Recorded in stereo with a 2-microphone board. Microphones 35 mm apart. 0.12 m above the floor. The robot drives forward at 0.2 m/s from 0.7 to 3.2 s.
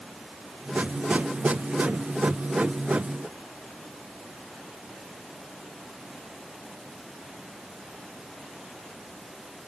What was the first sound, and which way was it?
Only background noise.